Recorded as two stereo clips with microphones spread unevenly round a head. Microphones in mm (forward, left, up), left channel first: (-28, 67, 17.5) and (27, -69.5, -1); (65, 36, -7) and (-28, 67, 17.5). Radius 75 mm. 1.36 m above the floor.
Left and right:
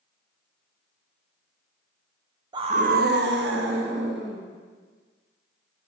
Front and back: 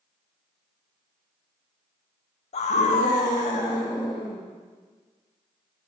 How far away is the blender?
I don't hear a blender.